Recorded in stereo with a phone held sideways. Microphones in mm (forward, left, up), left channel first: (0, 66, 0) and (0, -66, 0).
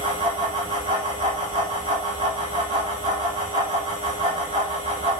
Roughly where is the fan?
Right.